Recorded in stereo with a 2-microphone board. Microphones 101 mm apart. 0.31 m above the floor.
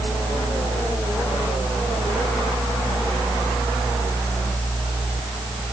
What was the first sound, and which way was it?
Only background noise.